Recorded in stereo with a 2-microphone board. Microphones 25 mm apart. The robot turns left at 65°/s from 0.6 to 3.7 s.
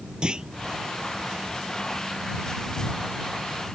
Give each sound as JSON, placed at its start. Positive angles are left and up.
{"t": 0.2, "sound": "a clunk", "side_deg": -30}